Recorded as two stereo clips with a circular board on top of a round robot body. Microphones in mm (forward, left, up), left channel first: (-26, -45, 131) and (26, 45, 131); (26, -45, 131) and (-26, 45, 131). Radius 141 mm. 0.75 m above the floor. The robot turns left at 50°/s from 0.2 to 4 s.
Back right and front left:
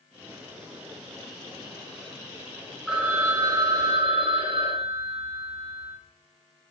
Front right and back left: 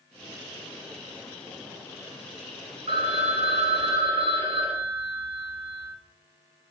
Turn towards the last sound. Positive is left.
turn(degrees=85)